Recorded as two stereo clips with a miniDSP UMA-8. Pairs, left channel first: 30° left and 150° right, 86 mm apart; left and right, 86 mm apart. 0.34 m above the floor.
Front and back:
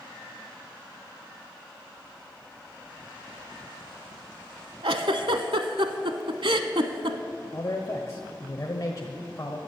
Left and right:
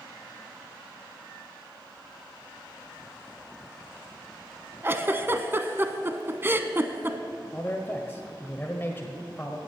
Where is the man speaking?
40° left, 1.3 m.